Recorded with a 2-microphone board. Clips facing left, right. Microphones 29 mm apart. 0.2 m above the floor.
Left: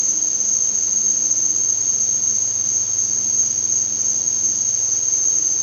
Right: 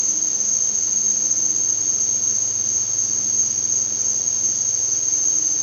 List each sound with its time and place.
0.0 s an insect: 20° right (ahead or behind)